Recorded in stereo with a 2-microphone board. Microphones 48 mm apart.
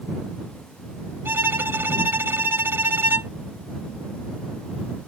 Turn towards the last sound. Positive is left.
turn(degrees=-60)  # may be behind; listen again after turning